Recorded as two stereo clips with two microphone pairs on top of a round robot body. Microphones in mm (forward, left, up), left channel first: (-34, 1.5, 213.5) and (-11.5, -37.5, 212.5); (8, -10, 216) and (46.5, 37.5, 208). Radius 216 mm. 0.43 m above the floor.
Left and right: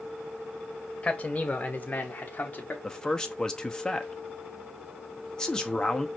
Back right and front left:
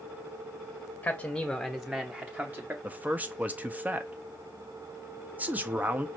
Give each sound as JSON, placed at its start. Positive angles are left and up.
{"t": 1.0, "sound": "a man speaking", "azimuth_deg": 170, "distance_m": 1.1}
{"t": 2.8, "sound": "a man speaking", "azimuth_deg": 55, "distance_m": 1.0}